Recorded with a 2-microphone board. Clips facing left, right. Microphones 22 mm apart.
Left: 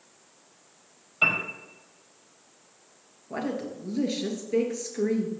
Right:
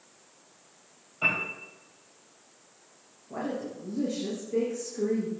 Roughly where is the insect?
No insect in this recording.